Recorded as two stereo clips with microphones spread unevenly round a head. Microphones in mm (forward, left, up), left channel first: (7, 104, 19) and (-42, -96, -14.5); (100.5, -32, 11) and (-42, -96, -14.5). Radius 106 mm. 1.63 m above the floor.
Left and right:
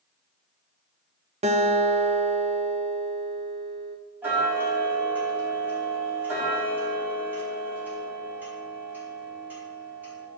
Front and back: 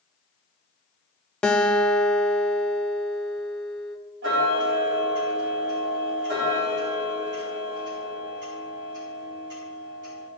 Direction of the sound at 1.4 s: 45° right.